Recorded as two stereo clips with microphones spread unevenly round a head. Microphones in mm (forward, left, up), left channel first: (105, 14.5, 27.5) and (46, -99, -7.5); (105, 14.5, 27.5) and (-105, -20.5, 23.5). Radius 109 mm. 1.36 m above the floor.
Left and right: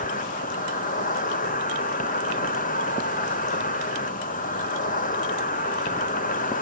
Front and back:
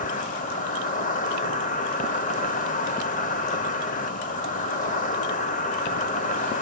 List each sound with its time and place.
0.0 s an insect: 60° left, 1.3 m